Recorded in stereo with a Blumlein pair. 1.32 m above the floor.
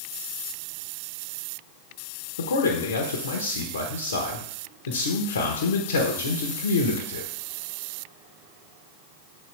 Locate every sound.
2.4 s a man speaking: 65° left, 1.1 m